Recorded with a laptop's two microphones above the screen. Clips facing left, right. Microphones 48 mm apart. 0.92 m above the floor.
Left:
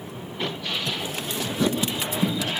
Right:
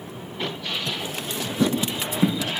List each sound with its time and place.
1.6 s footsteps: 35° right (ahead or behind), 4 m